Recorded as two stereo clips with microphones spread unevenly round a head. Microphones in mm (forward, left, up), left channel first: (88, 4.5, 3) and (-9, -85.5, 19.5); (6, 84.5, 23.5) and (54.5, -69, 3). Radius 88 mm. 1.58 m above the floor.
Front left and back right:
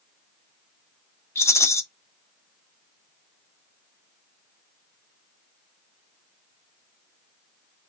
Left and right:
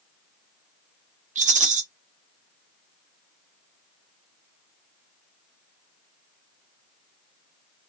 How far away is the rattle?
About 1.2 m.